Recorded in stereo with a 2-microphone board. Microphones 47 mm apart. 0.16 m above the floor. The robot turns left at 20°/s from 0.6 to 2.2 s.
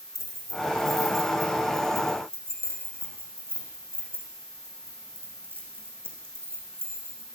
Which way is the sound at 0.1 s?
80° right.